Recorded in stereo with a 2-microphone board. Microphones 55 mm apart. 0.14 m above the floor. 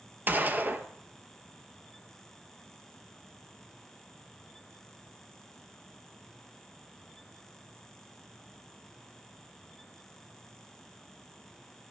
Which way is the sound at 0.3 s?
35° right (ahead or behind).